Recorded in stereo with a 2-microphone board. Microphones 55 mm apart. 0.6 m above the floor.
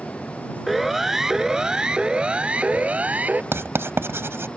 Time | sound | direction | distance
0.7 | a siren | 5° right (ahead or behind) | ?
3.5 | writing | 50° right (ahead or behind) | ?